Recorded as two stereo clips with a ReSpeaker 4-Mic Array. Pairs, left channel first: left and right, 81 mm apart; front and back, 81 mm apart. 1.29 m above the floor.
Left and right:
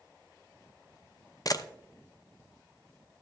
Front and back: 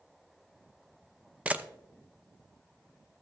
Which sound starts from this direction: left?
A camera shutter, at 1.4 s.